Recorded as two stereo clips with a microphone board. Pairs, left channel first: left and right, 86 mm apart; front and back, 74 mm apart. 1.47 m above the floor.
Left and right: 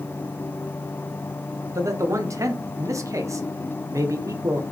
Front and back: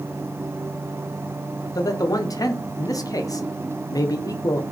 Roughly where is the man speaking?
Ahead right.